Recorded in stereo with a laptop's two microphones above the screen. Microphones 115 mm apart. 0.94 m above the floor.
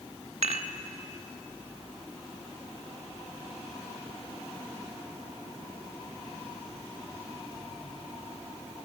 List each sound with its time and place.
0.4 s dishes clattering: 65° right (ahead or behind), 1.5 m